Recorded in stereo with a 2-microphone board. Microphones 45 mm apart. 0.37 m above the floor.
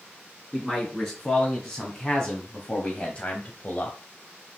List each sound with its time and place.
0.5 s a man speaking: 10° left (ahead or behind), 3 m; by 4.0 s 35° left (ahead or behind), 1.3 m